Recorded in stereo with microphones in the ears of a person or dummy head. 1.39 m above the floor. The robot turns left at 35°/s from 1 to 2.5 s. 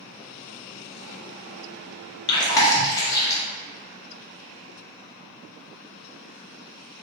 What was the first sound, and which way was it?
Chewing, 30° left (ahead or behind).